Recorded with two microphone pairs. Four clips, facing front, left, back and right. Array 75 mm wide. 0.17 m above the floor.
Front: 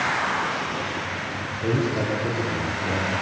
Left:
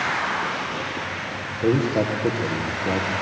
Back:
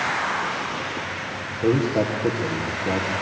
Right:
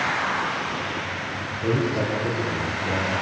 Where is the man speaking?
130° left, 5 m.